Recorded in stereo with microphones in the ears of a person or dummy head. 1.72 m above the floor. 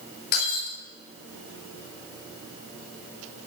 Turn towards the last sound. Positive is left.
turn(degrees=55)  # may be behind; listen again after turning